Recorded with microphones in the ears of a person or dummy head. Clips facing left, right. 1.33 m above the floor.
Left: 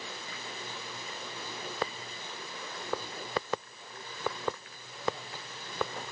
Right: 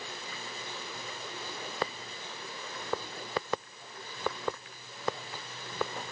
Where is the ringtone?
I don't hear a ringtone.